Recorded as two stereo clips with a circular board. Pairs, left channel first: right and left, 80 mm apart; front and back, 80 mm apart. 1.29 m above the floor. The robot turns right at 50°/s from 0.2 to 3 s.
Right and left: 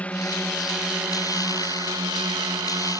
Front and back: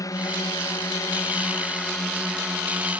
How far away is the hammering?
No hammering in this recording.